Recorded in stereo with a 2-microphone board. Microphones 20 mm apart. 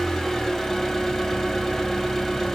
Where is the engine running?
25° left (ahead or behind), 1.5 m.